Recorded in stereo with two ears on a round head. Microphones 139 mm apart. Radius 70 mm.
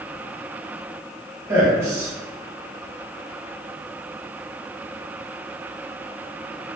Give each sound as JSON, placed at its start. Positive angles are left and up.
{"t": 1.5, "sound": "a man speaking", "side_deg": -20, "distance_m": 1.2}